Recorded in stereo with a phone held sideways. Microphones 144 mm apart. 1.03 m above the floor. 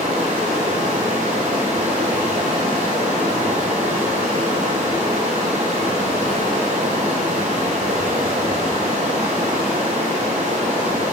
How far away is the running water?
About 3 m.